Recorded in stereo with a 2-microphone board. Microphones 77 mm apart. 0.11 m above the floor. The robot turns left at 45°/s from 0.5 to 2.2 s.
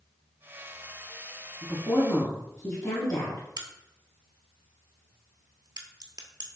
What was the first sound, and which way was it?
A woman speaking, 10° left (ahead or behind).